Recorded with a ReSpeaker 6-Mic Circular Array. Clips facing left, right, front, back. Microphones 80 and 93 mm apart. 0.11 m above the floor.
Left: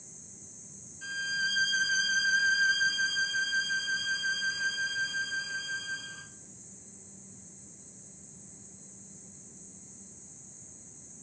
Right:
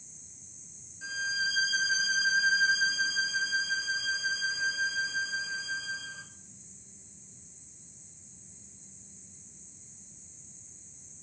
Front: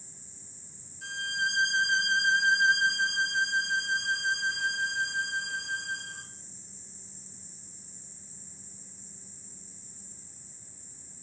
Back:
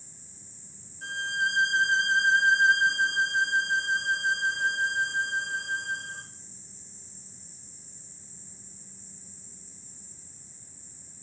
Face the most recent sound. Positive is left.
turn(degrees=-160)